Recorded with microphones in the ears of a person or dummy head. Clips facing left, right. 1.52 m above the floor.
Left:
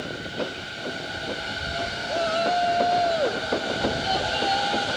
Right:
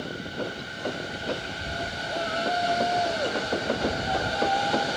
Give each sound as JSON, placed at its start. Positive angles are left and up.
{"t": 2.1, "sound": "a shout", "side_deg": 55}